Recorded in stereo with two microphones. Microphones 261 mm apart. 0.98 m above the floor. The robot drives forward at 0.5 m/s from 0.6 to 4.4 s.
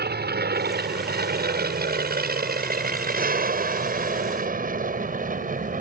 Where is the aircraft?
35° right (ahead or behind); by 5.8 s 30° right (ahead or behind).